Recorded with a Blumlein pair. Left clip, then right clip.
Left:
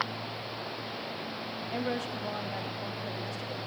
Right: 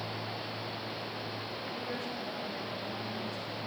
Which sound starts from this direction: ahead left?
A woman speaking, at 1.7 s.